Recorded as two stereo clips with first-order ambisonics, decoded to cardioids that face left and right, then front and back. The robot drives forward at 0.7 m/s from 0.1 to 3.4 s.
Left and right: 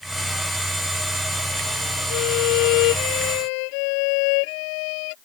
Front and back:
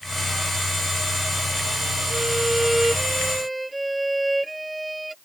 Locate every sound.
2.1 s a violin: 90° left; by 5.2 s 95° left